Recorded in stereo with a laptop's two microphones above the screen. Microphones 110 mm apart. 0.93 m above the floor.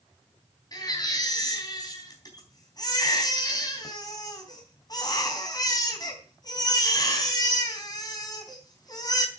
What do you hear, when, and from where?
0.7 s a baby crying: 35° left (ahead or behind), 3.5 m